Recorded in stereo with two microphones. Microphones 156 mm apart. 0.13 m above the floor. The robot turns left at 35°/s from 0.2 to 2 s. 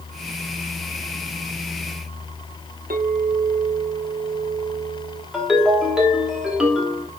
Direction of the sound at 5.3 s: 5° right (ahead or behind).